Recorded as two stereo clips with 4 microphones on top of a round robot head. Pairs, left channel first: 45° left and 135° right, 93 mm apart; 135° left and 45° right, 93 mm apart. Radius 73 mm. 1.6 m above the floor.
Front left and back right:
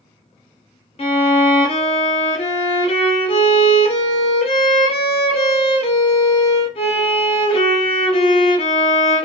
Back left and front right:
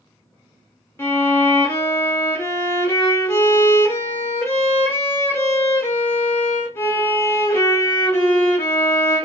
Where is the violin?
70° left, 0.5 m.